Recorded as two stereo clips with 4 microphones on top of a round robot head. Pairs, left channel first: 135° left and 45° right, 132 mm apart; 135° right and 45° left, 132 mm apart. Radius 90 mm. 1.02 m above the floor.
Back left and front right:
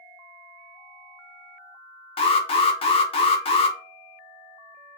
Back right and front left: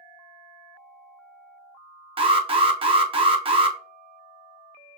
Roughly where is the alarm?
Left.